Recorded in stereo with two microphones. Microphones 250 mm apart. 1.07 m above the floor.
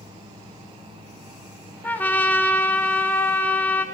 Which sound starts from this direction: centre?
A trumpet, at 1.8 s.